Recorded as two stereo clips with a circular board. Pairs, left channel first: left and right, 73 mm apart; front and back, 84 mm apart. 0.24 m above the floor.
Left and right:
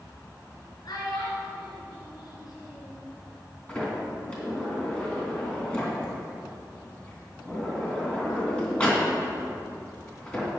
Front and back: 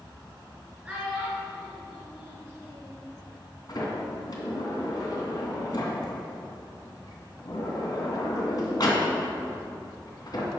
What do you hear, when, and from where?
0.8 s a child speaking: 105° left, 2.5 m
3.7 s a sliding door: 20° left, 2.5 m